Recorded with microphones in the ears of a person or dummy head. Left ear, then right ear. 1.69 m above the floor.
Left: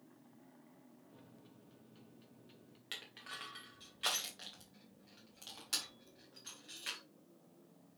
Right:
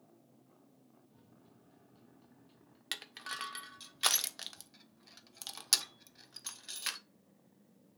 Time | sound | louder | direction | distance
1.1 | a microwave | left 3 dB | 20° left (ahead or behind) | 0.9 m
2.9 | crushing | right 6 dB | 60° right (ahead or behind) | 1.0 m